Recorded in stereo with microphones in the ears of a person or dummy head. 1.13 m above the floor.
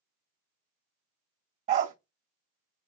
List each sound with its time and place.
1.7 s a dog barking: 40° right (ahead or behind), 0.9 m